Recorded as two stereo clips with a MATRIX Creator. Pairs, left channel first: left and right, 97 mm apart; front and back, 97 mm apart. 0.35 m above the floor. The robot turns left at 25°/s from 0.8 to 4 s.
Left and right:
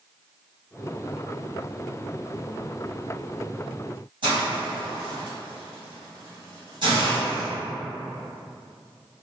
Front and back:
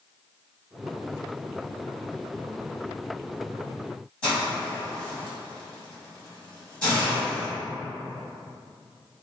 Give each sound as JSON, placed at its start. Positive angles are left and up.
{"t": 4.2, "sound": "a hiss", "azimuth_deg": -80, "distance_m": 1.7}